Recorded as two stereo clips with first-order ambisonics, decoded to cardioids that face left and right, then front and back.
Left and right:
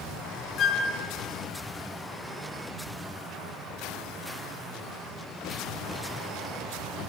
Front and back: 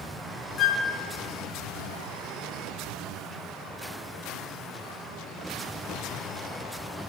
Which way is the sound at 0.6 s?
45° left.